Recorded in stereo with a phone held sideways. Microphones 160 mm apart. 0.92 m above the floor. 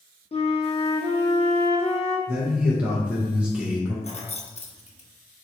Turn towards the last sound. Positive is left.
turn(degrees=40)  # may be behind; listen again after turning